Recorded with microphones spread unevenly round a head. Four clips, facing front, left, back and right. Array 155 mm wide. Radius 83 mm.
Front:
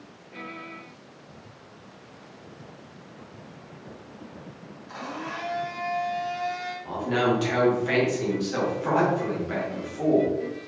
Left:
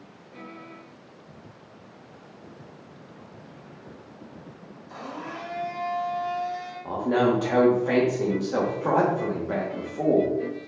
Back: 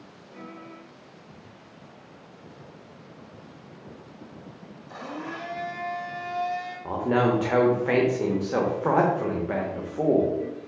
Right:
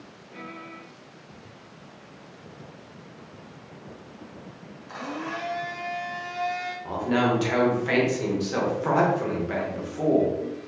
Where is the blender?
65° right, 1.2 m.